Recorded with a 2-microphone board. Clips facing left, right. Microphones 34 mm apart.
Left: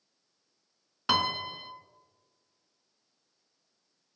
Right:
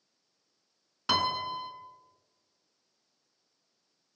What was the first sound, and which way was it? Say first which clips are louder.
A piano: even; 10° left (ahead or behind).